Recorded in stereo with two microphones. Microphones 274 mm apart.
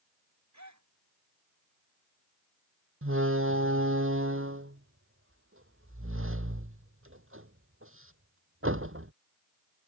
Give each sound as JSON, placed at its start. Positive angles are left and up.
{"t": 0.5, "sound": "a gasp", "side_deg": -80}
{"t": 3.0, "sound": "a door slam", "side_deg": -50}